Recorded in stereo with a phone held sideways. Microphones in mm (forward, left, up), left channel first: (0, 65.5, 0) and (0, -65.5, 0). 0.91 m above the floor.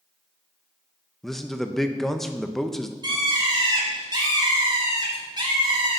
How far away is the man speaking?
About 0.7 m.